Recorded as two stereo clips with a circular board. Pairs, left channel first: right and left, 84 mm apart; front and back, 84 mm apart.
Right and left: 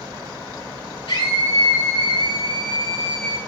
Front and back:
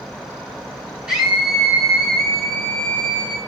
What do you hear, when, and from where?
1.1 s a scream: 105° right, 5.5 m; by 3.4 s 85° right, 4.5 m